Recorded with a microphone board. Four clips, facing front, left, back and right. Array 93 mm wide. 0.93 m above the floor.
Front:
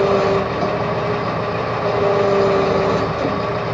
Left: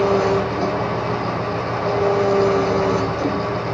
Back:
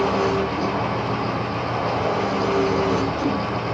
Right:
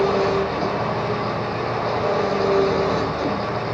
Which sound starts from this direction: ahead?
An engine running, at 0.0 s.